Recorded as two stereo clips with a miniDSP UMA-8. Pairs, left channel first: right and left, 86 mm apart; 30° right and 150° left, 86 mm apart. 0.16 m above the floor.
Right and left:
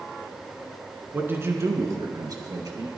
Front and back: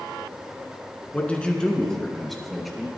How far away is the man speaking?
About 1.8 m.